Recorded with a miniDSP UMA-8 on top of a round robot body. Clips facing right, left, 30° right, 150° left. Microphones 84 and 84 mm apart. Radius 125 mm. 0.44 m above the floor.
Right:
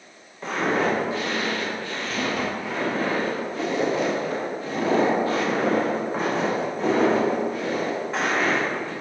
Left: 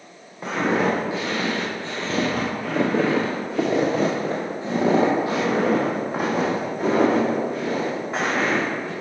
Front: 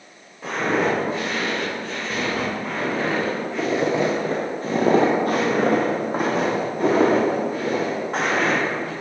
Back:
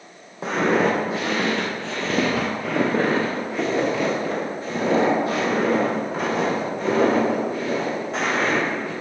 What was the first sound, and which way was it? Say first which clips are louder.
Footsteps: left 2 dB, back 2 dB; 165° left.